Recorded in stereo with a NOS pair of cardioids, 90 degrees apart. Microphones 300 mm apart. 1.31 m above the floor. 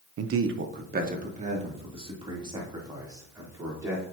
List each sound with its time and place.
0.2 s a man speaking: 55° right, 0.8 m; by 4.0 s 10° right, 4 m